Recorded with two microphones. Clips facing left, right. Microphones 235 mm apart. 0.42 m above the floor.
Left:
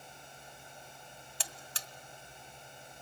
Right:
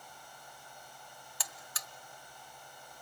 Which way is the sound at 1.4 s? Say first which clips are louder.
Left 1 dB; 30° left (ahead or behind).